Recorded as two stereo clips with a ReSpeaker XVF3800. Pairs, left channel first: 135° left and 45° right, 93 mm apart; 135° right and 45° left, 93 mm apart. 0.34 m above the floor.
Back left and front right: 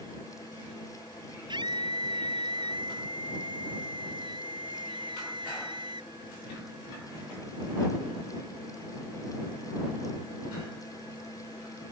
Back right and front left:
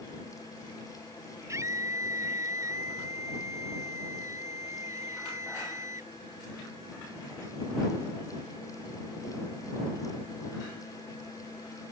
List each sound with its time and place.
1.5 s a scream: 10° right